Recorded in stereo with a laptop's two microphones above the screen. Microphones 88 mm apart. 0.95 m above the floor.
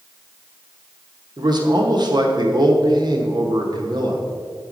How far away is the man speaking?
About 1.0 m.